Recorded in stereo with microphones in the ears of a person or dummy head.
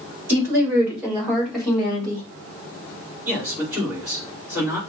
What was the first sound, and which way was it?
A woman speaking, 10° right (ahead or behind).